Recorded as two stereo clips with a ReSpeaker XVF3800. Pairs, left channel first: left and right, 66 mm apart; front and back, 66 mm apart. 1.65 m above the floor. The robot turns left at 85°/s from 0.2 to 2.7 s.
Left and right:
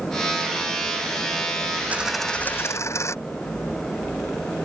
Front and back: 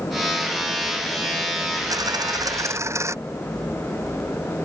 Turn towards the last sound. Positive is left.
turn(degrees=135)